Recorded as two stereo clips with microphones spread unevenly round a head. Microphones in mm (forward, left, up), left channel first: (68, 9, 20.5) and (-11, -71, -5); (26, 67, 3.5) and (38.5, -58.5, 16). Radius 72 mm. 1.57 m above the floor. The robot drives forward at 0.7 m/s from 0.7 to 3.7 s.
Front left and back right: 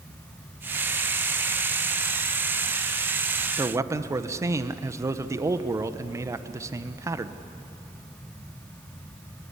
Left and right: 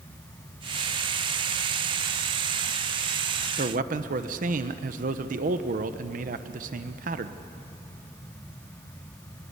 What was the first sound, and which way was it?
A man speaking, 65° right.